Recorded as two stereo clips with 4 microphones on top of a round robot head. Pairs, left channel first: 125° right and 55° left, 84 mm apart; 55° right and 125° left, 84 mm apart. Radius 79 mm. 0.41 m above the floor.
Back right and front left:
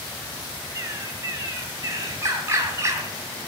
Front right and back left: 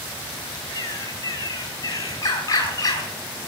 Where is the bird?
5° right, 2.5 m.